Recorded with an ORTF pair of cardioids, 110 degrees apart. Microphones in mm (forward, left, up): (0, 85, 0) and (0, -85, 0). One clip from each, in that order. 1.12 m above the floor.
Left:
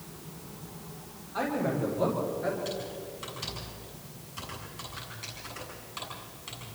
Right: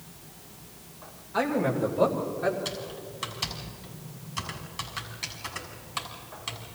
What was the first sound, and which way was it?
A man speaking, 65° right.